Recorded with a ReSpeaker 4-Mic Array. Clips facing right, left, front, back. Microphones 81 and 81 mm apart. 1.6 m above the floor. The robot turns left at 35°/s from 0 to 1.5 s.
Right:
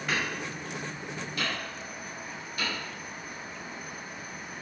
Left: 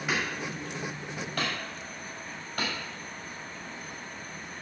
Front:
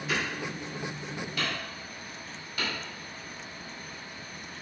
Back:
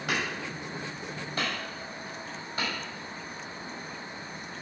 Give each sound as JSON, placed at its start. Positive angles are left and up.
{"t": 0.1, "sound": "hammering", "azimuth_deg": 165, "distance_m": 5.0}